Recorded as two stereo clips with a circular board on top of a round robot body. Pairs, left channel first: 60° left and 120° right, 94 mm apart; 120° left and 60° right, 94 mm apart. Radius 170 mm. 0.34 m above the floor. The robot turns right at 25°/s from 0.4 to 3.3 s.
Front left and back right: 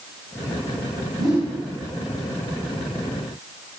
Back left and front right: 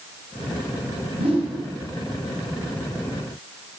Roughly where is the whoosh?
Right.